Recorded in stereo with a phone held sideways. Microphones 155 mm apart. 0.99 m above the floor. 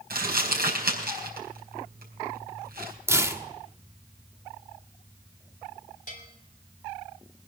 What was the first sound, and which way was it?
Crumpling, 85° right.